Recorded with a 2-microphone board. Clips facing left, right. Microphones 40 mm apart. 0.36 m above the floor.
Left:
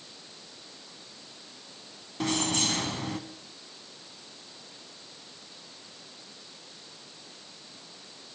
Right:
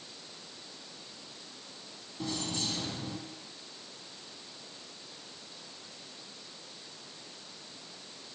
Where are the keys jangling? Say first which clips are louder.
Left 7 dB; 70° left (ahead or behind), 2 m.